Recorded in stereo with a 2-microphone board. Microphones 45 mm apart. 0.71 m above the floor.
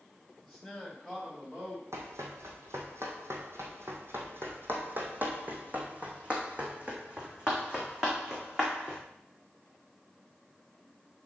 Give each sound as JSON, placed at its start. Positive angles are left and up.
{"t": 0.4, "sound": "a man speaking", "side_deg": -10, "distance_m": 2.5}
{"t": 1.9, "sound": "running footsteps", "side_deg": -75, "distance_m": 2.5}